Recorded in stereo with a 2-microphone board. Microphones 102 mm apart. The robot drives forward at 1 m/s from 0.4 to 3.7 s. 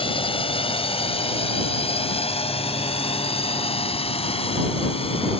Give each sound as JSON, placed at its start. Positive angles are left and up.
{"t": 0.0, "sound": "a drone", "side_deg": 60}